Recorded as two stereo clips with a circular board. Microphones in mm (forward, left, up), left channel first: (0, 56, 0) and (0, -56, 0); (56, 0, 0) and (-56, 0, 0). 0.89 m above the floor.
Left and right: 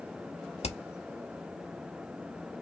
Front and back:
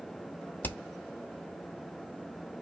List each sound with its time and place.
0.6 s hammering: 75° left, 1.0 m